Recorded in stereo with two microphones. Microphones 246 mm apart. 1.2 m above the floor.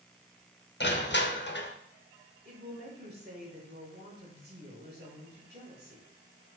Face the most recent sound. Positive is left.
turn(degrees=-40)  # may be behind; listen again after turning